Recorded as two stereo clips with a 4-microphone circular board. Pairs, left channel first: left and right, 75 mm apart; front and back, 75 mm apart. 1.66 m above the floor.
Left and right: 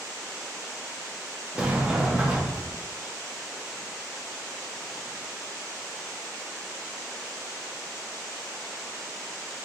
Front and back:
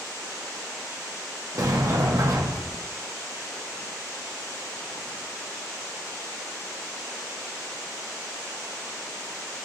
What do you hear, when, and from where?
1.6 s a sliding door: 160° right, 0.7 m